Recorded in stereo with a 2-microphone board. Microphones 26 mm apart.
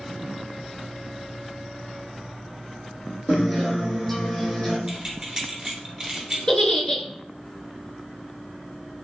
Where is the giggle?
25° left (ahead or behind), 0.6 m.